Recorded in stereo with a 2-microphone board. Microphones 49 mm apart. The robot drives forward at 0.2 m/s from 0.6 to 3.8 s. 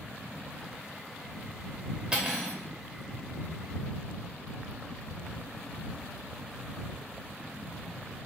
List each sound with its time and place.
2.1 s cutlery clinking: 20° right (ahead or behind), 0.7 m; by 2.6 s 15° right (ahead or behind), 0.7 m